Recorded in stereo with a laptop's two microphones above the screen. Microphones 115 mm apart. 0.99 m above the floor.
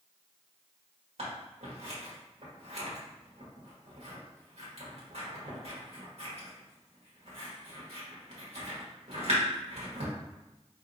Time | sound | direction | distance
1.2 | scissors | 65° right (ahead or behind) | 1.6 m